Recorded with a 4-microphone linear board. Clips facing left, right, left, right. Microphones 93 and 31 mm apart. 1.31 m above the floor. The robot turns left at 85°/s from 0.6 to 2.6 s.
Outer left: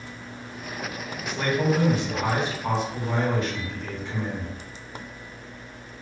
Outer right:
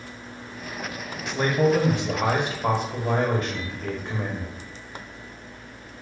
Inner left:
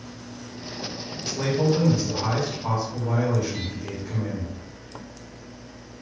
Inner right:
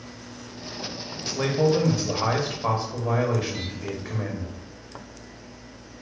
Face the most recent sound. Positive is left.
turn(degrees=-135)